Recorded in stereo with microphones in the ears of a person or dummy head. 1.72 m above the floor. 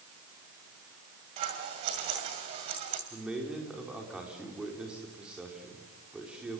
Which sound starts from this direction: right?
Scissors, at 1.4 s.